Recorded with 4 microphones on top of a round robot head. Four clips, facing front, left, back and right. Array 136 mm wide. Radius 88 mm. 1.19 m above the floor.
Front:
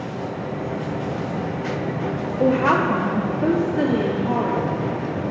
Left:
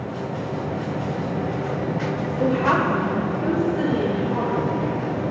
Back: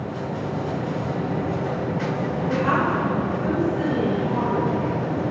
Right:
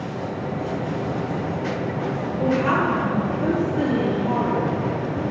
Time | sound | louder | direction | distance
2.4 | a woman speaking | left 1 dB, front 5 dB | 20° left | 1.9 m